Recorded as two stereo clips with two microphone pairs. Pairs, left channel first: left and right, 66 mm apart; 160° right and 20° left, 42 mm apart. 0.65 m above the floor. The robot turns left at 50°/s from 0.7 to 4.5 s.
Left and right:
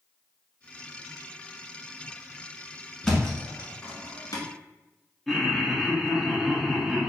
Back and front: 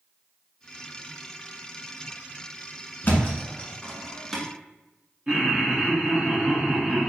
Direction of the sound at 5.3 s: 5° right.